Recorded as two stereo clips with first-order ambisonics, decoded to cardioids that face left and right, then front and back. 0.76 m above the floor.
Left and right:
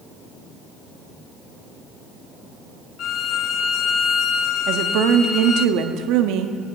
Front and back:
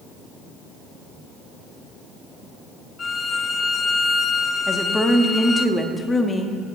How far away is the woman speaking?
About 1.0 m.